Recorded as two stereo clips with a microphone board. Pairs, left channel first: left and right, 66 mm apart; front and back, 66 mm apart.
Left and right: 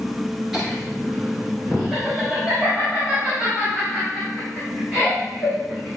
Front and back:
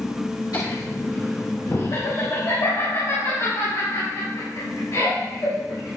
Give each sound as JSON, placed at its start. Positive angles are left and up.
{"t": 0.5, "sound": "laughter", "azimuth_deg": -5, "distance_m": 2.5}